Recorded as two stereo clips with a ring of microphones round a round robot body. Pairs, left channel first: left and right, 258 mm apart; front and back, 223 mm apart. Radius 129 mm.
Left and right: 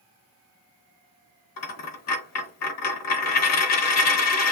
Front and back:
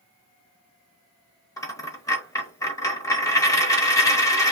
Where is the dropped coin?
75° left, 0.9 m.